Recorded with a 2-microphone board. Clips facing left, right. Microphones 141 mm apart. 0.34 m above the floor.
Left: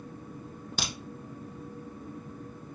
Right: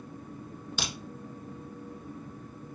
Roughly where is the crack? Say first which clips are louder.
Left 1 dB; left.